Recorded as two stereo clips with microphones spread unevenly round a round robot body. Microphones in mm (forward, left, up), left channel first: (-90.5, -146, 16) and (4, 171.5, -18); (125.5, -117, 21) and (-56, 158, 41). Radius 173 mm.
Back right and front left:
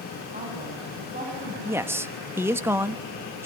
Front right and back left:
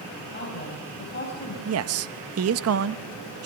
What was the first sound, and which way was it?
A woman speaking, 5° left.